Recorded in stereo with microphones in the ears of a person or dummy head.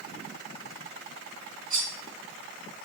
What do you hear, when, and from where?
1.7 s cutlery clinking: 25° right (ahead or behind), 1.3 m